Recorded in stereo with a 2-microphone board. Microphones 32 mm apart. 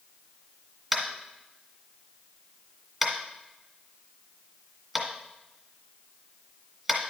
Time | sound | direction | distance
0.9 | tapping | 10° right (ahead or behind) | 1.8 m